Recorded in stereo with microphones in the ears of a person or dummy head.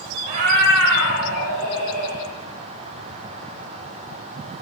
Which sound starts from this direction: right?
A cat meowing, at 0.3 s.